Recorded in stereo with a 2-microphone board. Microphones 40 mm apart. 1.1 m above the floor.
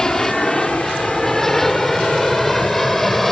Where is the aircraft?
15° left (ahead or behind); by 3.3 s 5° left (ahead or behind).